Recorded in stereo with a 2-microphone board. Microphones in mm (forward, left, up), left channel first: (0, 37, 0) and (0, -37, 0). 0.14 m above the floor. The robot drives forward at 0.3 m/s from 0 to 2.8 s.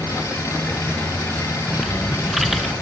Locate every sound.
1.7 s typing on a keyboard: 5° right (ahead or behind), 1.0 m